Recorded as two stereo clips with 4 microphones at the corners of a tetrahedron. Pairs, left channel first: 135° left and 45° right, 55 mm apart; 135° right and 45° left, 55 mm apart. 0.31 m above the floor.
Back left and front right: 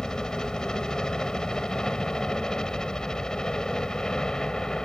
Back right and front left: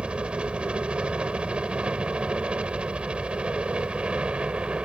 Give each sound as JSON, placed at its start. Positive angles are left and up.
{"t": 0.0, "sound": "a helicopter", "azimuth_deg": 80}